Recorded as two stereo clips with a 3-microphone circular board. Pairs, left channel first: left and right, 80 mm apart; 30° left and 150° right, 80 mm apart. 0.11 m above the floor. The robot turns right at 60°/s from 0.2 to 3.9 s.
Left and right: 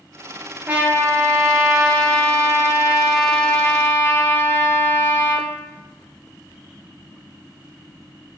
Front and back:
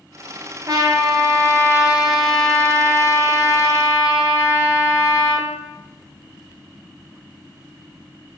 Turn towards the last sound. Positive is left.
turn(degrees=40)